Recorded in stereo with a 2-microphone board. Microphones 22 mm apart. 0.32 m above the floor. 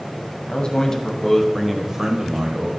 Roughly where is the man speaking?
Left.